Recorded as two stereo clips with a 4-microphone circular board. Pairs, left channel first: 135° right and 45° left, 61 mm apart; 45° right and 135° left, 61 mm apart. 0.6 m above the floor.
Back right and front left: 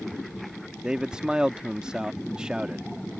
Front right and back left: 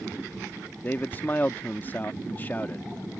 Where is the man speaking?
20° right.